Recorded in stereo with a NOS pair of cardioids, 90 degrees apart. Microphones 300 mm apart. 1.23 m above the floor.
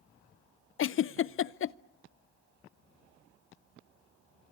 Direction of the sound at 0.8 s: 45° left.